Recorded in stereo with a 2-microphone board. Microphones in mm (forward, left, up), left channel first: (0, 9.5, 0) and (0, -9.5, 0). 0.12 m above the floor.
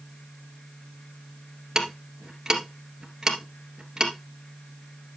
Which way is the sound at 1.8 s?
35° right (ahead or behind).